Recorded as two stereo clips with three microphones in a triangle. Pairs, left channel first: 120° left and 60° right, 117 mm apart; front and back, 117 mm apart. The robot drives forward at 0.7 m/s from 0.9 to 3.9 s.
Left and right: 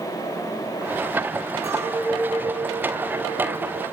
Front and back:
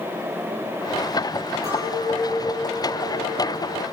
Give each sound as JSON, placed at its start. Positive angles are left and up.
{"t": 1.6, "sound": "a clink", "azimuth_deg": -120, "distance_m": 7.5}